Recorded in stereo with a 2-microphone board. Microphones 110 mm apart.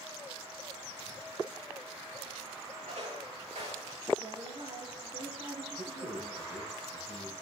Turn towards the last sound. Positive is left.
turn(degrees=-75)  # may be behind; listen again after turning